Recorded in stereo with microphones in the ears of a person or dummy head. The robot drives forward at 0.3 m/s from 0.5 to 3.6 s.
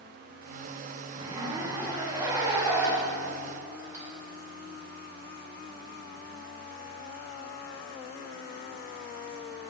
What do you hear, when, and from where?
1.1 s a zipper: 20° right (ahead or behind), 0.9 m; by 4.0 s 15° right (ahead or behind), 1.6 m